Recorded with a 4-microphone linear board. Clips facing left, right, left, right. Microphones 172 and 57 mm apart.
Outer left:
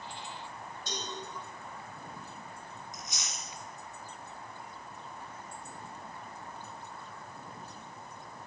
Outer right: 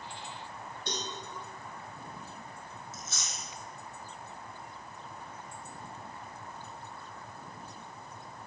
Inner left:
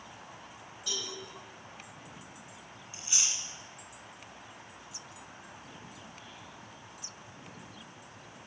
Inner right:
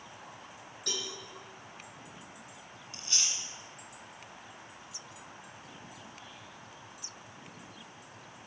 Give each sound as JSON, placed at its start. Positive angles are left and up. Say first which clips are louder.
{"t": 0.9, "sound": "a cowbell", "louder": "outer right 3 dB, inner right 1 dB", "side_deg": -60, "distance_m": 5.0}
{"t": 2.9, "sound": "chewing", "louder": "even, even", "side_deg": 15, "distance_m": 2.5}